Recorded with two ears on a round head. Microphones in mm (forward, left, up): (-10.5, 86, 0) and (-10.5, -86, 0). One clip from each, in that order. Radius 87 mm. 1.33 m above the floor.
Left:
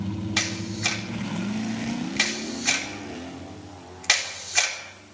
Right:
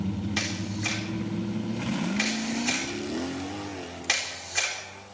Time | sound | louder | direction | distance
0.4 | a camera shutter | left 5 dB | 30° left (ahead or behind) | 4.5 m